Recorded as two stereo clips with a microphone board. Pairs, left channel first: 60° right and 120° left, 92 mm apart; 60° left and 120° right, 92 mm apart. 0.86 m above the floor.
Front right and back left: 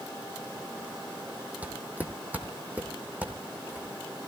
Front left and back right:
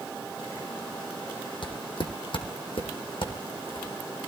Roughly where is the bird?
No bird in this recording.